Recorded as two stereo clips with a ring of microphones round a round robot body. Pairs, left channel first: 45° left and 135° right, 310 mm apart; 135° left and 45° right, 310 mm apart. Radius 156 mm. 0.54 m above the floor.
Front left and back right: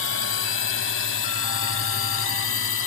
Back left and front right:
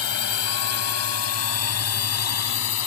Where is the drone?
95° left.